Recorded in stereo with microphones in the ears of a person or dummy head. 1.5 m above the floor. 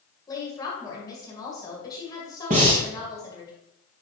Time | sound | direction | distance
0.3 | a woman speaking | 25° left (ahead or behind) | 1.8 m
2.5 | breathing | 25° right (ahead or behind) | 0.8 m